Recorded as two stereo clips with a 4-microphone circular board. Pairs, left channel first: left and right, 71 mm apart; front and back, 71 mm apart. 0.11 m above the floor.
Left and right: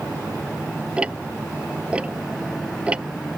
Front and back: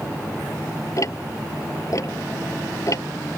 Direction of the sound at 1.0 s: 20° right.